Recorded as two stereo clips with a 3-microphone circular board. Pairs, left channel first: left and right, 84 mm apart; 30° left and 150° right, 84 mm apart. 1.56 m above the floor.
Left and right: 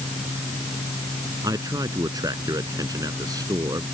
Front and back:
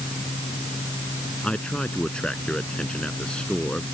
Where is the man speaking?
50° right.